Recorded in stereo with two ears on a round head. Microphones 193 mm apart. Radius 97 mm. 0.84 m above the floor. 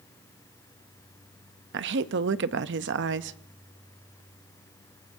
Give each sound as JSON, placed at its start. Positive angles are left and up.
{"t": 1.7, "sound": "a woman speaking", "side_deg": -55, "distance_m": 0.7}